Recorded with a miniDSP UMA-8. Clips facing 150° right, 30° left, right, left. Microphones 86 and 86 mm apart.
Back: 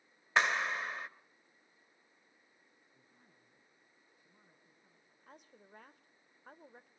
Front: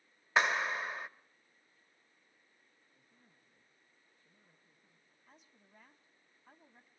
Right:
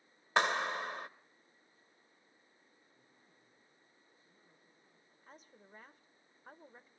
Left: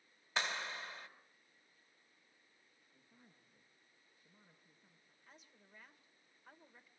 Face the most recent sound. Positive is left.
turn(degrees=-135)